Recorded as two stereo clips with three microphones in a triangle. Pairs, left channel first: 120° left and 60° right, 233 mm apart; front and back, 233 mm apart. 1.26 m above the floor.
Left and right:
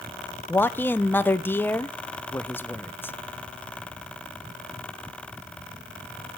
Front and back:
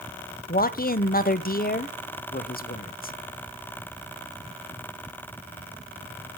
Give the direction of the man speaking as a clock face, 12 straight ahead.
11 o'clock.